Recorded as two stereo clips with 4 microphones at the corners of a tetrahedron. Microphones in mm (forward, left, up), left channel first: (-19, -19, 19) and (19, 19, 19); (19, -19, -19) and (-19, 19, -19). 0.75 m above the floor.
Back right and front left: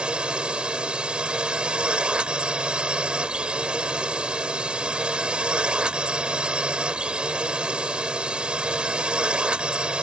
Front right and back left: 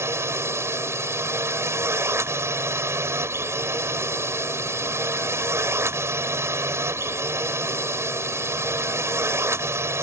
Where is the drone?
115° left.